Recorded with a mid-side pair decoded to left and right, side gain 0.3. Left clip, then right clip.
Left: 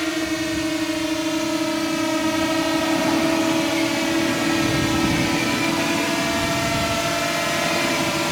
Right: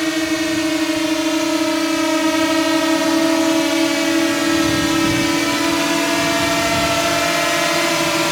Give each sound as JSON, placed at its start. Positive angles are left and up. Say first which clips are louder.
{"t": 0.0, "sound": "a drone", "louder": "right 5 dB", "azimuth_deg": -50}